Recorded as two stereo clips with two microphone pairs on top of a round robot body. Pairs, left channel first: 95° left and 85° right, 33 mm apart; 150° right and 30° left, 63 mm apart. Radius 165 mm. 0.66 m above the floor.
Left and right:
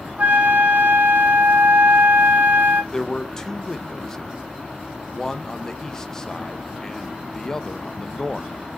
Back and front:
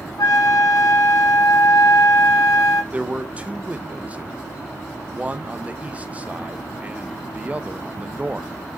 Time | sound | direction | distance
0.2 | a flute | 130° right | 3.5 m
2.9 | a man speaking | 40° left | 1.1 m